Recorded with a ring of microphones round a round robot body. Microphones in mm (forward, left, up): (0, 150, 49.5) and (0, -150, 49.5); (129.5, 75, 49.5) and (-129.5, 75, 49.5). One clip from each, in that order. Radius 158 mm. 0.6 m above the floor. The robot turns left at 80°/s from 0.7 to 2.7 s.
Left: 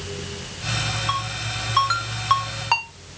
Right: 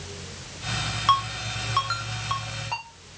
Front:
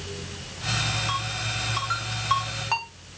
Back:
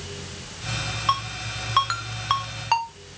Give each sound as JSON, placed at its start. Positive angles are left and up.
{"t": 1.1, "sound": "a ringtone", "azimuth_deg": -120, "distance_m": 1.5}